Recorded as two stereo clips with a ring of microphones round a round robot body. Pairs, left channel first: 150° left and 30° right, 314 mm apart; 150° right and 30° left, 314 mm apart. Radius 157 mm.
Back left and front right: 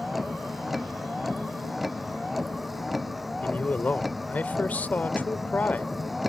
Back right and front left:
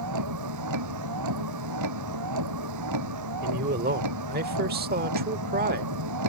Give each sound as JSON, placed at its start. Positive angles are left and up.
{"t": 0.0, "sound": "a vehicle", "azimuth_deg": 60}
{"t": 3.4, "sound": "a man speaking", "azimuth_deg": 70}